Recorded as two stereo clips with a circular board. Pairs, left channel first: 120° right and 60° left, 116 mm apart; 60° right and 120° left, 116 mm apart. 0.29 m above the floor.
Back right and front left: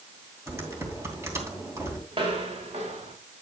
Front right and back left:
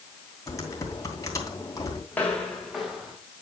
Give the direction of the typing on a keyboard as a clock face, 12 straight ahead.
12 o'clock.